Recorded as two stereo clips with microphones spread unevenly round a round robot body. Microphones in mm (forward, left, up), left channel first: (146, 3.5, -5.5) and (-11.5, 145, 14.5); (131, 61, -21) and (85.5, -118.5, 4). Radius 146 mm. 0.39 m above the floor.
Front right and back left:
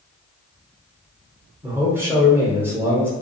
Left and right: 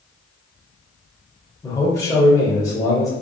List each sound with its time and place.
1.6 s a man speaking: 60° left, 1.0 m